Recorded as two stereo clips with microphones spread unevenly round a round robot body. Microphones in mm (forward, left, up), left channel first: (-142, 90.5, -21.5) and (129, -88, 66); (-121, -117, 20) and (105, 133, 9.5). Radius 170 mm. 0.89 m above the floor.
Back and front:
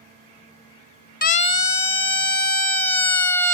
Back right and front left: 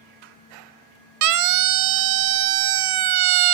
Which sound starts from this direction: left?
A siren, at 1.2 s.